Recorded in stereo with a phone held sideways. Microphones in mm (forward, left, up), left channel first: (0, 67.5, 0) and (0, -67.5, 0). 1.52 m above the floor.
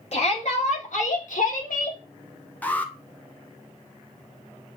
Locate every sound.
0.1 s a shout: 55° left (ahead or behind), 3 m; by 2.0 s 85° left, 2.5 m
2.6 s an alarm: 10° left (ahead or behind), 1.0 m